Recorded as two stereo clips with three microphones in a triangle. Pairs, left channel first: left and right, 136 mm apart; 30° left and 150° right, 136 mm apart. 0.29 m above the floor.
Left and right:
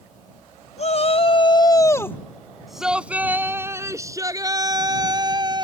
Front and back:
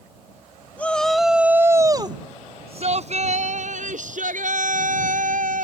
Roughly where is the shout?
Left.